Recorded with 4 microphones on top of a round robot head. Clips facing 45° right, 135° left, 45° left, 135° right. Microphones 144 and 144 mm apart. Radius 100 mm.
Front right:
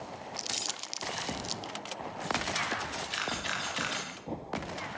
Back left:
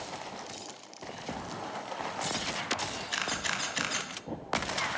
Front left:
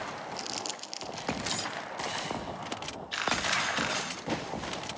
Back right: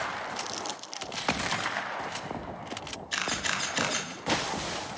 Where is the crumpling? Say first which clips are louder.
Front right 1 dB, back right 2 dB; 40° right, 0.6 m.